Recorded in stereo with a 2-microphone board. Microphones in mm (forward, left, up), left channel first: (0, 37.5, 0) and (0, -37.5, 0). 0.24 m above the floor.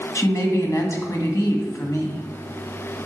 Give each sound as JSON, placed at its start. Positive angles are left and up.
{"t": 0.1, "sound": "a woman speaking", "side_deg": 40, "distance_m": 1.8}